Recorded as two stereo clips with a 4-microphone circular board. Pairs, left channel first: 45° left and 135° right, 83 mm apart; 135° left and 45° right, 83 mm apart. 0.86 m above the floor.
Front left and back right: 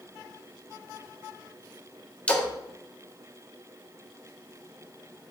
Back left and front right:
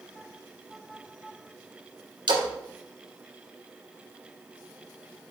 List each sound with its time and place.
2.3 s a splash: 30° right, 1.5 m